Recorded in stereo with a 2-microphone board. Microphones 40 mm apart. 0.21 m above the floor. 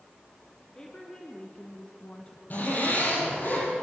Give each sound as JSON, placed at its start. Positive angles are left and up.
{"t": 0.8, "sound": "a woman speaking", "side_deg": 20, "distance_m": 3.0}
{"t": 2.5, "sound": "a zipper", "side_deg": 50, "distance_m": 9.0}